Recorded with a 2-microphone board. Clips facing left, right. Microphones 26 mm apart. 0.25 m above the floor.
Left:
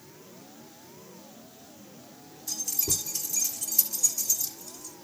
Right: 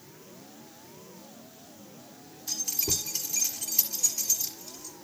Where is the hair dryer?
No hair dryer in this recording.